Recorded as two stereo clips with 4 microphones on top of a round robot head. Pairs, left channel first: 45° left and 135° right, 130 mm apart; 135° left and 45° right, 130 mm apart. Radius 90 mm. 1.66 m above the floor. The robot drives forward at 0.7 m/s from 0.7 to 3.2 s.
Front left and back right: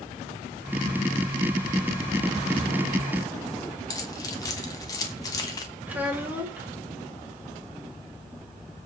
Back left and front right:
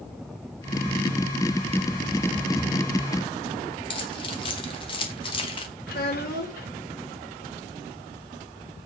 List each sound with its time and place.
3.9 s keys jangling: 100° left, 1.0 m
5.9 s a child speaking: 145° left, 2.5 m